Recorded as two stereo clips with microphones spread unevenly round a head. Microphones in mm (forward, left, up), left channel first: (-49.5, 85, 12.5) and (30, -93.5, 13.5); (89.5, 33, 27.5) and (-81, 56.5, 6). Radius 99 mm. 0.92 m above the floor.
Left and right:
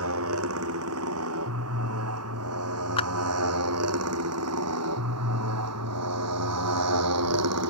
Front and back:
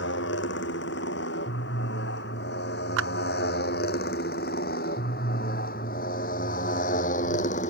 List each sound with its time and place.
0.0 s a motorcycle: 45° right; by 7.7 s 65° right
3.0 s a clap: straight behind